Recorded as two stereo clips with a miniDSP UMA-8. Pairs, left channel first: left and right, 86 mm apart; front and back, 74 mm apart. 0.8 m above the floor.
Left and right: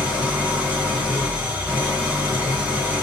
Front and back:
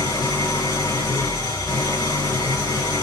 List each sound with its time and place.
0.0 s an engine running: 20° right, 3 m